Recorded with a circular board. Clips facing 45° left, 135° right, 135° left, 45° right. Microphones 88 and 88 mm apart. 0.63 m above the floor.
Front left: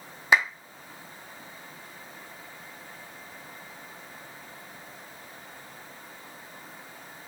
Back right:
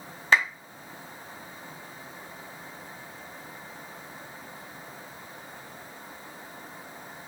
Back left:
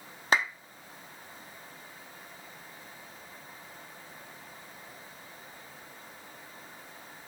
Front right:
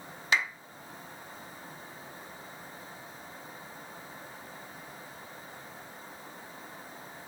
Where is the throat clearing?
I don't hear throat clearing.